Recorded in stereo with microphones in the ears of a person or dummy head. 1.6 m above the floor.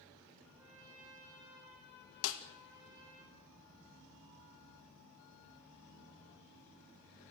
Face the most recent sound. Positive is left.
turn(degrees=75)  # may be behind; listen again after turning